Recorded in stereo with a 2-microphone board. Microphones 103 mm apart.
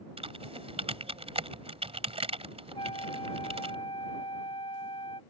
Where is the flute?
60° left (ahead or behind).